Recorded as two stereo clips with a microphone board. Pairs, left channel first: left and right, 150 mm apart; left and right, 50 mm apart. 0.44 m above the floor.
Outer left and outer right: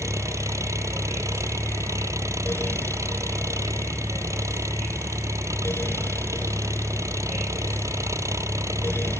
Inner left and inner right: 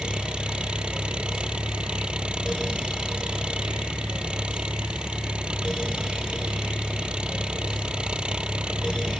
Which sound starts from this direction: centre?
An engine running, at 0.0 s.